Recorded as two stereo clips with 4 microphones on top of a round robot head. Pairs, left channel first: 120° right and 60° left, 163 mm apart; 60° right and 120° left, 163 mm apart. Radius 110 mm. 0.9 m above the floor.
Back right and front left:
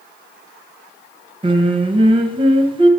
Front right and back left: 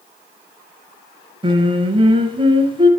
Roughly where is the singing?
Left.